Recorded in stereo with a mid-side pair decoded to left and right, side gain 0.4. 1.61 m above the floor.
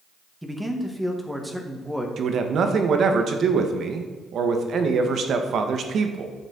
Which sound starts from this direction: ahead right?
A man speaking, at 2.2 s.